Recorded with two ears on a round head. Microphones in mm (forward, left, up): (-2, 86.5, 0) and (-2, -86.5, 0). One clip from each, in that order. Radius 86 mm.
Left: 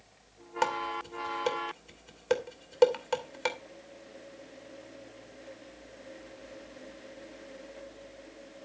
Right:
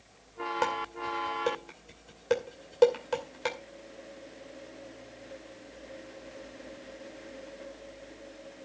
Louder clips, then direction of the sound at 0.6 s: Left 3 dB; 25° left (ahead or behind).